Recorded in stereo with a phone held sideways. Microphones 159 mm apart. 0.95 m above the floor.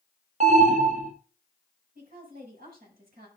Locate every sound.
0.4 s an alarm: 50° right (ahead or behind), 1.6 m
1.9 s a woman speaking: 70° right (ahead or behind), 6 m